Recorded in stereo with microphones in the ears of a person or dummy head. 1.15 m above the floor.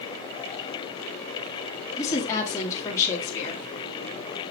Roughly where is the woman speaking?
Left.